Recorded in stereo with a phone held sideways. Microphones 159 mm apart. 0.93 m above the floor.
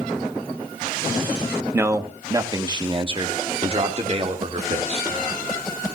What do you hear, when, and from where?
1.7 s a man speaking: 15° right (ahead or behind), 1.4 m; by 5.1 s 45° right (ahead or behind), 3 m